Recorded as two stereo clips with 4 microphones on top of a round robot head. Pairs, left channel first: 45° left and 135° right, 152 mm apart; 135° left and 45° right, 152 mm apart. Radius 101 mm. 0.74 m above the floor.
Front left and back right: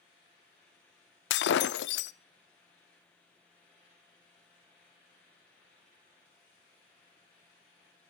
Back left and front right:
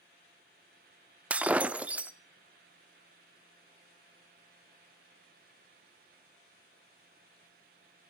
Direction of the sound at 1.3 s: 40° left.